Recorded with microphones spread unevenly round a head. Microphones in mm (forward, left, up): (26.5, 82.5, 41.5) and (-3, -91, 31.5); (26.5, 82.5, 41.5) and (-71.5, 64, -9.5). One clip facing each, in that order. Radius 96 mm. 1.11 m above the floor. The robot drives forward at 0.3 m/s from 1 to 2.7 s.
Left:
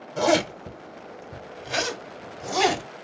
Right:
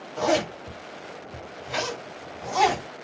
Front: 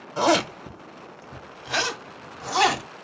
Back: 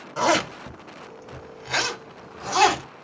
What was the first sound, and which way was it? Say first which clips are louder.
A zipper: left 2 dB, front 1 dB; 95° left.